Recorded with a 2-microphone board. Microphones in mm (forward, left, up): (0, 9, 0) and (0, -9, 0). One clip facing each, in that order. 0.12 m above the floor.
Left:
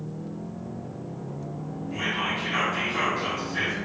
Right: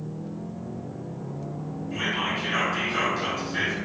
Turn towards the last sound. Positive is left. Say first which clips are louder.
# even
turn(degrees=-20)  # may be behind; listen again after turning